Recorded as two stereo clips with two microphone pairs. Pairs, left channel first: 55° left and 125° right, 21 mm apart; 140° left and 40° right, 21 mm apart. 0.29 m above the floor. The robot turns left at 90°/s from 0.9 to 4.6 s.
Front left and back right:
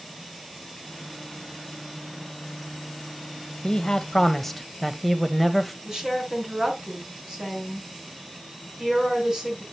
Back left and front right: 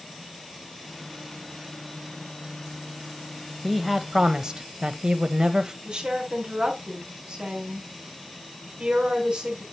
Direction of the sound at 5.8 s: 65° right.